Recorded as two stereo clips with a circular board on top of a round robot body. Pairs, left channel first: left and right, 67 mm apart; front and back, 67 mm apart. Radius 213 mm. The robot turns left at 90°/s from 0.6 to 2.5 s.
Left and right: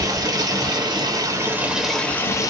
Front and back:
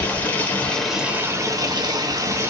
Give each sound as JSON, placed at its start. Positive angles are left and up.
{"t": 0.0, "sound": "running water", "azimuth_deg": -65, "distance_m": 0.9}